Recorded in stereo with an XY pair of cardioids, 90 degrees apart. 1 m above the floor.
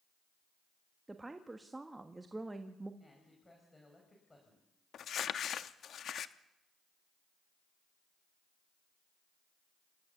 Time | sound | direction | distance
1.1 | a woman speaking | 20° right | 1.4 m
3.0 | a man speaking | 20° left | 5.5 m
4.9 | crumpling | 65° left | 0.9 m